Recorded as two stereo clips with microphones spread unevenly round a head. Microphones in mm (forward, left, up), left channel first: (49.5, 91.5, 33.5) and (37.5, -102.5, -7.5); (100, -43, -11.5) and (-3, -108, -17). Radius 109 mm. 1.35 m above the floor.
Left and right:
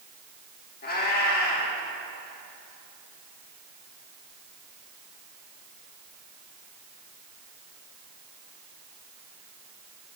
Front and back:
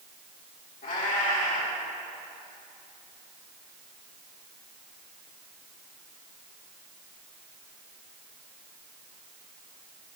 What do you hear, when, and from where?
0.8 s a cat meowing: 55° left, 2.0 m